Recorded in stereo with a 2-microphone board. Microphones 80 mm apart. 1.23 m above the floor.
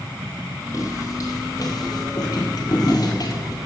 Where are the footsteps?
40° left (ahead or behind), 2.5 m; by 3.6 s 45° left (ahead or behind), 2 m.